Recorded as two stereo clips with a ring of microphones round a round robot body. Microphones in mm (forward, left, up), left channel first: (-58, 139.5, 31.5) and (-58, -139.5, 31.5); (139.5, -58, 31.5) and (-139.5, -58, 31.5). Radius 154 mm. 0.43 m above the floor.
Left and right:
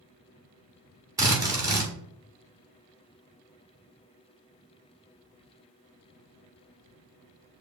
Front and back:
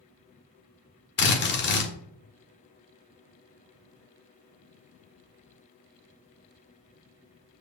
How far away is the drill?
About 1.6 m.